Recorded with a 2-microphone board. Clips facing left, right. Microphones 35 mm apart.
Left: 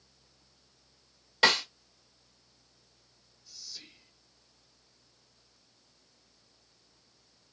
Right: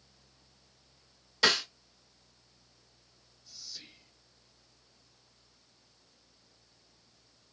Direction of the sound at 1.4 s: 35° left (ahead or behind).